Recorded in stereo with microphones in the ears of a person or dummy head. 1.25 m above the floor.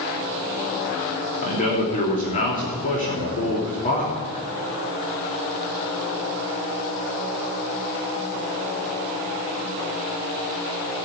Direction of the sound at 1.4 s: 45° left (ahead or behind).